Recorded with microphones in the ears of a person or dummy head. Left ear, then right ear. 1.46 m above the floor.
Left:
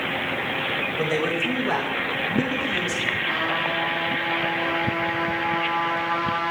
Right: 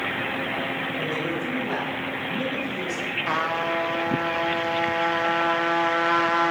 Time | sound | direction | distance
1.0 | a man speaking | 45° left (ahead or behind) | 1.0 m
3.3 | a trumpet | 65° right (ahead or behind) | 0.7 m